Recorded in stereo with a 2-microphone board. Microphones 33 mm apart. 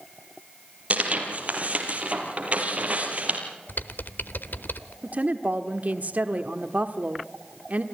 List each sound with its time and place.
0.9 s tearing paper: 45° right (ahead or behind), 3.5 m
3.7 s typing on a keyboard: 80° left, 1.0 m
5.0 s a woman speaking: 50° right (ahead or behind), 1.3 m